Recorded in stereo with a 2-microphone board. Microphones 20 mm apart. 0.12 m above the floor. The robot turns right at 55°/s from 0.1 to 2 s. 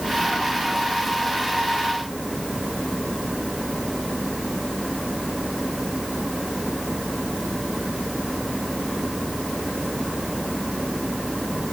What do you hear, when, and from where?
Only background noise.